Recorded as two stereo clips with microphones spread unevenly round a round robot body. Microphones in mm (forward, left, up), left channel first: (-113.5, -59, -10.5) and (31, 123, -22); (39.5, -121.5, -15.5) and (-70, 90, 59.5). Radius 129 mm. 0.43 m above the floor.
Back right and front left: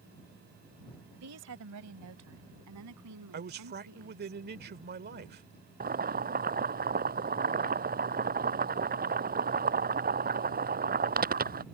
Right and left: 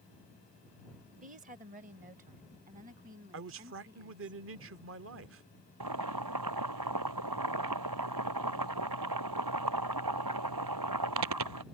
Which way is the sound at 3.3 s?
75° left.